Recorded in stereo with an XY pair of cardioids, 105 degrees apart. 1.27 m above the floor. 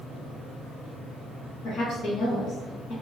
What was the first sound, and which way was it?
A woman speaking, 70° left.